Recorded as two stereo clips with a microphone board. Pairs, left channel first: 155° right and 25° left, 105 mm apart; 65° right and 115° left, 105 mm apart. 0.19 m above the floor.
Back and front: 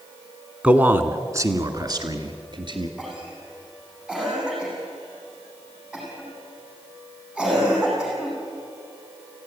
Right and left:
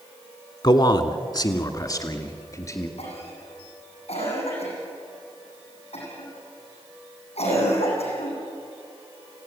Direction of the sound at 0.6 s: 50° right.